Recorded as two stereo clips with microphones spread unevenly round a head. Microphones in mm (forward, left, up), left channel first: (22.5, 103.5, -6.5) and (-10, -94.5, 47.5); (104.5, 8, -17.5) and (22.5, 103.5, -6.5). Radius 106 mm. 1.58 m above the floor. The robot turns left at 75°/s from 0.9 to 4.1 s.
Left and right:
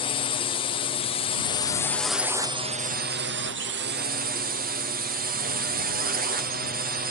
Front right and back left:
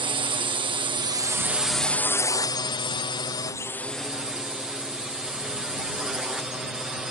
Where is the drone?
100° left; by 7.1 s 140° right.